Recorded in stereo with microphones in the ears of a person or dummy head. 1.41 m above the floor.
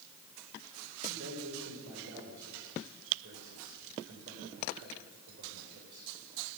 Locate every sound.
1.1 s a man speaking: 60° right (ahead or behind), 6 m